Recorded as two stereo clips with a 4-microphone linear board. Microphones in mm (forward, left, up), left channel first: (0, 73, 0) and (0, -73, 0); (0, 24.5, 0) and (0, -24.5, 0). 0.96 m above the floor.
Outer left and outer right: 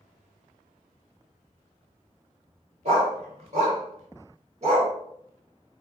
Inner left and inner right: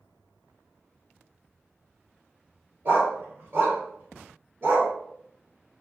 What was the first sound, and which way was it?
A dog barking, 50° right (ahead or behind).